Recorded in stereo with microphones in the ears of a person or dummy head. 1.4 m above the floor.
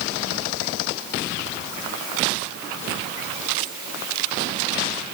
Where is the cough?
No cough in this recording.